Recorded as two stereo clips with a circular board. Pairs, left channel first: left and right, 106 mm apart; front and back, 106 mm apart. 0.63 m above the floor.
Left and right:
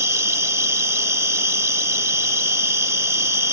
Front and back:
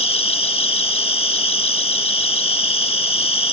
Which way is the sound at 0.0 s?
25° right.